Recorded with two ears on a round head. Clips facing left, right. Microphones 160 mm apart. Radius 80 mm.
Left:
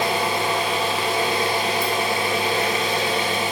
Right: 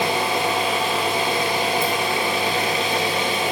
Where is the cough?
I don't hear a cough.